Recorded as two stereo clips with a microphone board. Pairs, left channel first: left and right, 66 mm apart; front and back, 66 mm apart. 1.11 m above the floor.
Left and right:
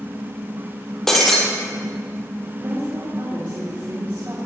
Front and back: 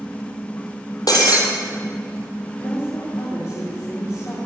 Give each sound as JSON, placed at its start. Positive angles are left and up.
{"t": 1.1, "sound": "breaking glass", "azimuth_deg": 5, "distance_m": 3.5}
{"t": 2.6, "sound": "a woman speaking", "azimuth_deg": -35, "distance_m": 3.5}